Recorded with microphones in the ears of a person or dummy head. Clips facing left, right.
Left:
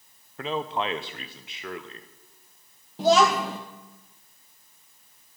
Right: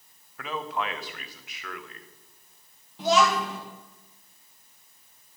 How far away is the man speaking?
About 0.5 m.